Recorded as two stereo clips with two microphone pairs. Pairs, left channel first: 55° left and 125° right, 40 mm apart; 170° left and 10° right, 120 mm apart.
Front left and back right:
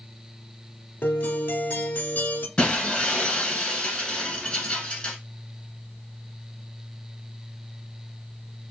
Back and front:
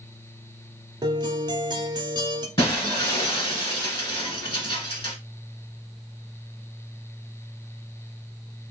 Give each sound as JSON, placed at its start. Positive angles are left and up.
{"t": 1.0, "sound": "a guitar", "azimuth_deg": 35, "distance_m": 0.6}
{"t": 2.6, "sound": "breaking glass", "azimuth_deg": 125, "distance_m": 1.3}